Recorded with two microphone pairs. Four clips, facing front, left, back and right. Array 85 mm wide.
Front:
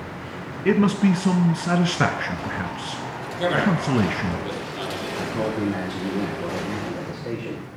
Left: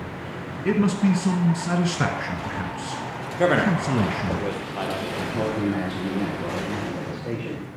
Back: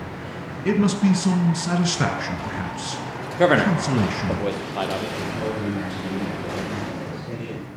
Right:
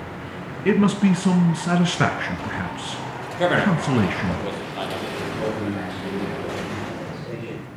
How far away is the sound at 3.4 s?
About 2.5 m.